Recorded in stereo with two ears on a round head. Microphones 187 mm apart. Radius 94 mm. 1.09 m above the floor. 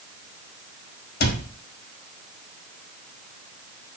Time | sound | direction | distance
1.2 | a cupboard door | 55° left (ahead or behind) | 1.4 m